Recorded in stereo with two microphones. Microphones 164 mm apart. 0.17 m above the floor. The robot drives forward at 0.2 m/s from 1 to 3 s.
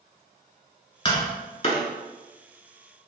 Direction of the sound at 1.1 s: 35° left (ahead or behind).